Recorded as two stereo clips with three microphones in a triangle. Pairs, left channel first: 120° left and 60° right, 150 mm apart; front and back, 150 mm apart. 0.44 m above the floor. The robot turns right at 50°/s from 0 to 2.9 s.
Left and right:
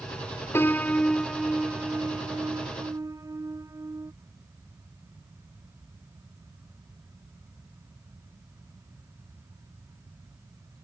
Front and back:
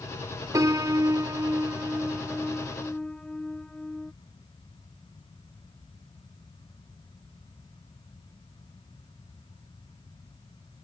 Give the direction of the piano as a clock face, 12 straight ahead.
6 o'clock.